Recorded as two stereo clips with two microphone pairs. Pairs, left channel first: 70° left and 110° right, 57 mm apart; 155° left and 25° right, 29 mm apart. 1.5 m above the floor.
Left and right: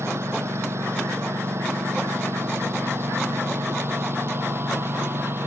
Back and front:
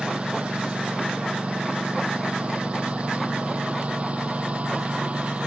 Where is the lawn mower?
70° right; by 5.5 s 65° right.